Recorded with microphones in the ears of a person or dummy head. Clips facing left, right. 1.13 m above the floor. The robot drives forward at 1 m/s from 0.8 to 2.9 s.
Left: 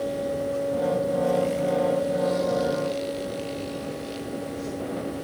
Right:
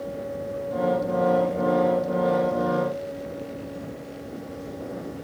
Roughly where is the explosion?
I don't hear an explosion.